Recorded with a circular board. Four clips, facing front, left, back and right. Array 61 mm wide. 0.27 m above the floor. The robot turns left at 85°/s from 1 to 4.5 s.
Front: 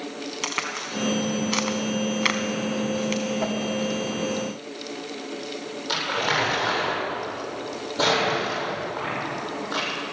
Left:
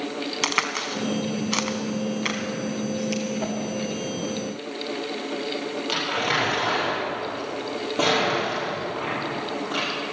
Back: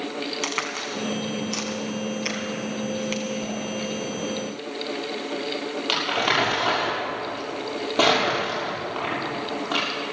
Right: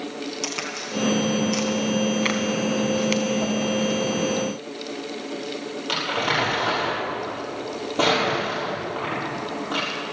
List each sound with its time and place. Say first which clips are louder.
0.4 s a crack: left 5 dB, back 1 dB; 90° left, 1.3 m; by 3.2 s 95° right, 1.3 m
3.4 s a whoosh: right 4 dB, front 4 dB; 10° left, 1.9 m; by 3.6 s 5° right, 1.9 m
5.9 s crumpling: right 2 dB, back 1 dB; straight behind, 7 m